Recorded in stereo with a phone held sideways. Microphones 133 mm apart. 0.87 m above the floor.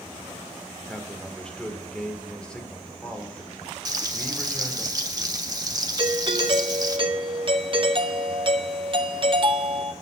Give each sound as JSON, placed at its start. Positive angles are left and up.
{"t": 0.9, "sound": "a man speaking", "side_deg": 5, "distance_m": 2.0}
{"t": 3.9, "sound": "frying", "side_deg": -30, "distance_m": 1.0}
{"t": 6.0, "sound": "a doorbell", "side_deg": -40, "distance_m": 0.9}